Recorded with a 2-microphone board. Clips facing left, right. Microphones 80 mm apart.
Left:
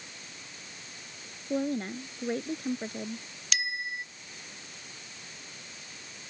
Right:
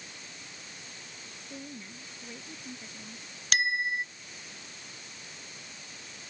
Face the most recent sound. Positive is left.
turn(degrees=-50)  # may be behind; listen again after turning